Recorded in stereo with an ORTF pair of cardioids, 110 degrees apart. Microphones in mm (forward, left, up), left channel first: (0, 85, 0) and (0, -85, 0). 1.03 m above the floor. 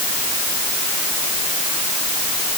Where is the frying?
I don't hear frying.